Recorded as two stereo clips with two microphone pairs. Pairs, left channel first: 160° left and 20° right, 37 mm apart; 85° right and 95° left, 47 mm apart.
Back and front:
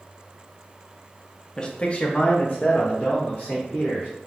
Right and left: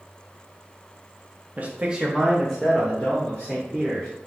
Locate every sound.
1.6 s a man speaking: 100° left, 0.7 m; by 4.1 s 145° right, 1.7 m